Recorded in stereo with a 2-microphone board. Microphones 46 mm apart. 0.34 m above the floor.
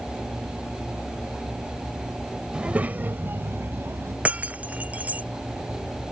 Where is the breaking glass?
30° right (ahead or behind).